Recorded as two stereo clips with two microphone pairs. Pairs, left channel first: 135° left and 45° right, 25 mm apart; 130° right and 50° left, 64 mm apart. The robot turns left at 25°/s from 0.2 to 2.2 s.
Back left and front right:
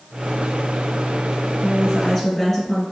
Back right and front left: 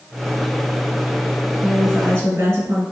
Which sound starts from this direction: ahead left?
A woman speaking, at 1.6 s.